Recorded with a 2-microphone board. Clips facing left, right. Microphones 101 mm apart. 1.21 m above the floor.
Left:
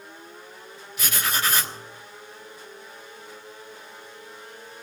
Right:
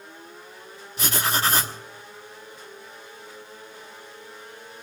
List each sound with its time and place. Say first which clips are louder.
1.0 s writing: right 3 dB; 30° right (ahead or behind), 1.5 m